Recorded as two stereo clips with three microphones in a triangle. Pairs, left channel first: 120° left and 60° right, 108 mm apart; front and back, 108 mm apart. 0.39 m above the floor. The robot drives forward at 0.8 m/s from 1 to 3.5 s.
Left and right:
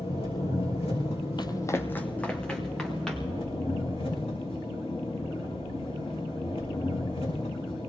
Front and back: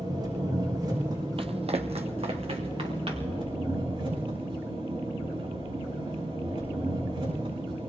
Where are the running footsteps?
160° left, 0.7 m; by 3.4 s 155° right, 3.5 m.